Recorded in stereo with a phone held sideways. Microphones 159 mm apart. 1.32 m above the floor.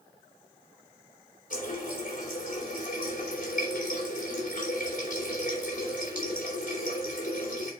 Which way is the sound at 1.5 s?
60° left (ahead or behind).